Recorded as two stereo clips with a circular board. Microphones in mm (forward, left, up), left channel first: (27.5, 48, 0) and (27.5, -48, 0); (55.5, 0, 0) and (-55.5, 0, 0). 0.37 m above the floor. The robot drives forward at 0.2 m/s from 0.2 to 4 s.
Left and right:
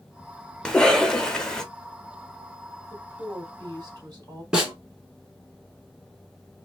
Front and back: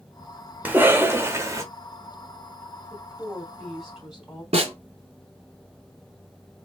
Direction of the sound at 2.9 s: 90° right.